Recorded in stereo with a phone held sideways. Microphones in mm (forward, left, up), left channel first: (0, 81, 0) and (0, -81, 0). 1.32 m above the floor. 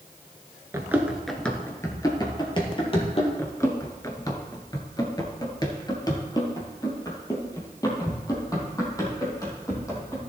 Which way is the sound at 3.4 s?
15° left (ahead or behind).